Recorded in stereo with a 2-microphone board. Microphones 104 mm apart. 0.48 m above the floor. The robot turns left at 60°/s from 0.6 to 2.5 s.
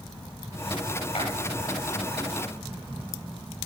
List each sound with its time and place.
1.1 s a clap: 75° left (ahead or behind), 10 m; by 1.2 s 70° left (ahead or behind), 10 m